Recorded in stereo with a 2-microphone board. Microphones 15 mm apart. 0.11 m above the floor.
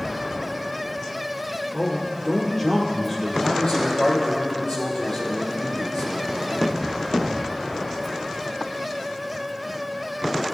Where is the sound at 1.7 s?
15° left (ahead or behind), 2 m; by 3.3 s 30° left (ahead or behind), 2.5 m.